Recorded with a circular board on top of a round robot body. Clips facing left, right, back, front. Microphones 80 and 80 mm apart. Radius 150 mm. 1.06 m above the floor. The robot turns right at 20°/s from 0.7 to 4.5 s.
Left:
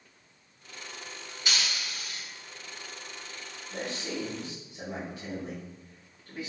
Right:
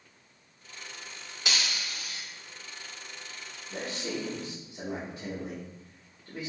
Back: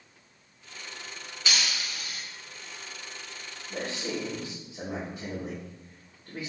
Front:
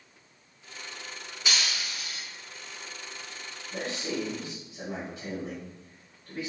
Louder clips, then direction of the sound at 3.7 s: Even, even; 155° right.